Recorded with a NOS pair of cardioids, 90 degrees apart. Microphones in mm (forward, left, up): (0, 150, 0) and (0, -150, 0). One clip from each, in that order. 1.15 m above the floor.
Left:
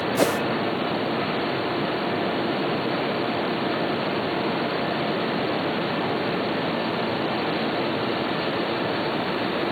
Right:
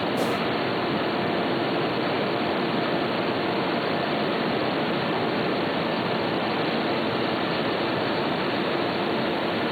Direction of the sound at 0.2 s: 50° left.